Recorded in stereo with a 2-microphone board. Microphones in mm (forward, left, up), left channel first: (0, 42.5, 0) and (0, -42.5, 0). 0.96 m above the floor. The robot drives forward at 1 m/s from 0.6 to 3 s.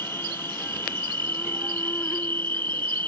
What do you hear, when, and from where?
0.0 s an insect: 30° left (ahead or behind); by 3.1 s 25° left (ahead or behind)